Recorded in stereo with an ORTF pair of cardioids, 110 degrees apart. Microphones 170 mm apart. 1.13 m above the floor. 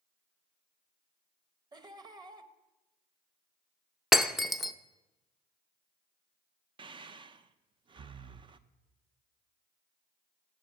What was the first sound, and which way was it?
Laughter, 25° right.